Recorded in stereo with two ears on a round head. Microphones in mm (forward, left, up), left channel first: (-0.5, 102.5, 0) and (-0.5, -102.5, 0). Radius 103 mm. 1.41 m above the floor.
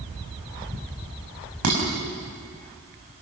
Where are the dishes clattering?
75° right (ahead or behind), 6.5 m.